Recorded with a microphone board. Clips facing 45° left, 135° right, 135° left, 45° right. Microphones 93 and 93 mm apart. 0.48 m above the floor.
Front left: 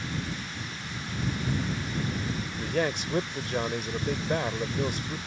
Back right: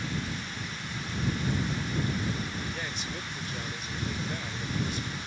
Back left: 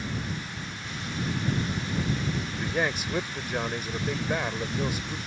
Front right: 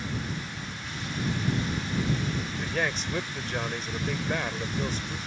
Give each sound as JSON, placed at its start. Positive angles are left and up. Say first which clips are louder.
{"t": 2.5, "sound": "a man speaking", "louder": "front left 8 dB, back left 2 dB", "azimuth_deg": 55}